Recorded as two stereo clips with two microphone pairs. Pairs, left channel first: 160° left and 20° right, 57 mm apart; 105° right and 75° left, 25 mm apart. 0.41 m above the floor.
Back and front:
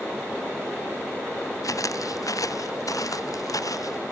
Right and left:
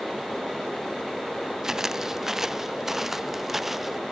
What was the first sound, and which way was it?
Footsteps, 145° left.